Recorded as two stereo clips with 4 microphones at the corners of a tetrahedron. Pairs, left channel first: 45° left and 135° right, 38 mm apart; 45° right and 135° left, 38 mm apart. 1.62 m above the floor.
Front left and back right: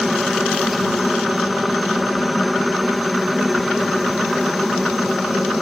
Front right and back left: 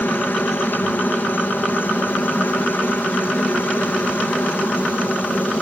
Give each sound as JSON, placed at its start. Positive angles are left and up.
{"t": 0.0, "sound": "a helicopter", "azimuth_deg": -50}